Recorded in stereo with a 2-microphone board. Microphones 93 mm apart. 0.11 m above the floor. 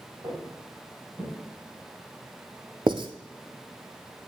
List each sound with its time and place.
0.2 s footsteps: 35° right (ahead or behind), 5.5 m; by 1.3 s 20° right (ahead or behind), 6 m
2.9 s writing: 60° right (ahead or behind), 0.7 m